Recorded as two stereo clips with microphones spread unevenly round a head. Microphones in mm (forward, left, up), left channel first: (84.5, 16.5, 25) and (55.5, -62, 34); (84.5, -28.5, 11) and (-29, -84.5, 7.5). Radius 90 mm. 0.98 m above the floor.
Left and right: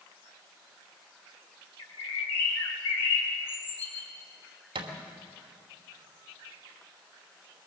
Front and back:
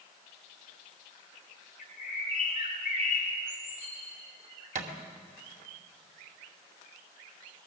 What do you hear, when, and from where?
1.8 s a bird: 75° left, 5 m
4.8 s a thud: 135° right, 2.5 m